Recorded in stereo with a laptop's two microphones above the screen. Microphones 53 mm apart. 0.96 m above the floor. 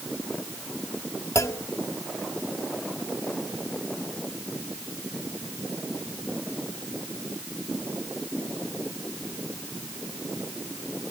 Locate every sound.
1.4 s a clunk: 80° left